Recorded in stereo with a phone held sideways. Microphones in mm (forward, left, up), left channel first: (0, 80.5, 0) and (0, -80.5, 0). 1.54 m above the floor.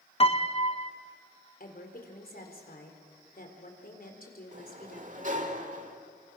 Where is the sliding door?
50° right (ahead or behind), 1.7 m.